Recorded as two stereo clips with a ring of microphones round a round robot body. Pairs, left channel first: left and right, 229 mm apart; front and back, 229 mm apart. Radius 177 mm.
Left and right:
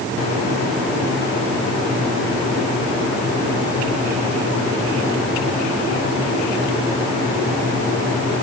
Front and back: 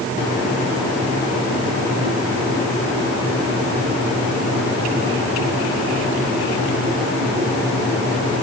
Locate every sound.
Only background noise.